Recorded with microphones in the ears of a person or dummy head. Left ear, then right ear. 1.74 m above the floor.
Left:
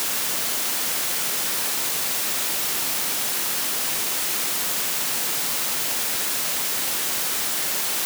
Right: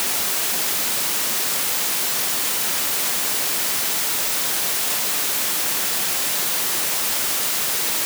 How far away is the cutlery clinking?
No cutlery clinking in this recording.